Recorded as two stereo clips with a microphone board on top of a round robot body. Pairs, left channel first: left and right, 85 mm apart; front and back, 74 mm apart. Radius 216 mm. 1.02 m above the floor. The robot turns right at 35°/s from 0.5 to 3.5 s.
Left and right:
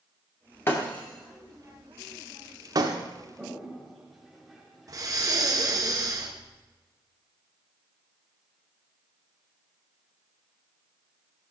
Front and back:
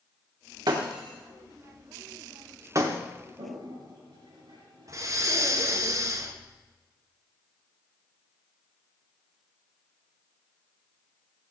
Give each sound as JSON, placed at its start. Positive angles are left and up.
{"t": 0.7, "sound": "breaking glass", "azimuth_deg": 155, "distance_m": 1.1}
{"t": 3.4, "sound": "a toilet flushing", "azimuth_deg": 175, "distance_m": 5.0}
{"t": 4.9, "sound": "breathing", "azimuth_deg": -135, "distance_m": 1.7}